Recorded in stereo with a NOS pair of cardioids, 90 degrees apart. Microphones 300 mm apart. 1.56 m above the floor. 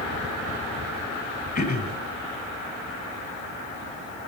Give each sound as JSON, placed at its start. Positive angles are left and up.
{"t": 1.6, "sound": "throat clearing", "azimuth_deg": 30, "distance_m": 4.5}